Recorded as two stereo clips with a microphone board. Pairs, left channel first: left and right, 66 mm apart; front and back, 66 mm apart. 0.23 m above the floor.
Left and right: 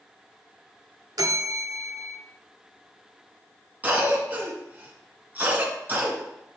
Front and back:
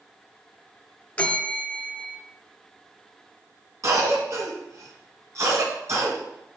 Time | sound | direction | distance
1.2 | a bell | 70° right | 0.8 m
3.8 | a cough | 150° right | 1.9 m